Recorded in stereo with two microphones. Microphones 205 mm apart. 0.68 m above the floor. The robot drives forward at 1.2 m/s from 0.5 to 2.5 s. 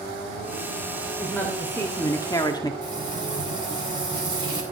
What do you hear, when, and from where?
1.2 s a woman speaking: 10° left (ahead or behind), 2.5 m; by 2.7 s 20° left (ahead or behind), 1.2 m
2.8 s frying: 25° right (ahead or behind), 5.5 m